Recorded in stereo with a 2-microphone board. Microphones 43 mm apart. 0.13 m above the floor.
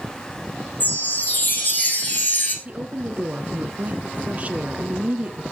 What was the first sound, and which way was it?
A chime, 45° left (ahead or behind).